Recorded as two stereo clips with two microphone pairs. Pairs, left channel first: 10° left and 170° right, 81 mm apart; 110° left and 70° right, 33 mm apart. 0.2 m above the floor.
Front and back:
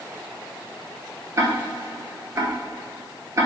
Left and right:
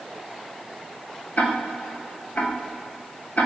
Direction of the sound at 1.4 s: 145° left.